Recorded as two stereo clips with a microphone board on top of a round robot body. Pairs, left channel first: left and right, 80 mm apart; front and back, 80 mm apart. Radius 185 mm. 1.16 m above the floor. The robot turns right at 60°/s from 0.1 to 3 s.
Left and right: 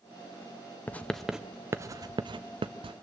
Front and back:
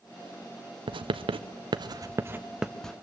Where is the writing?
160° left, 0.7 m; by 2.9 s 80° right, 0.7 m.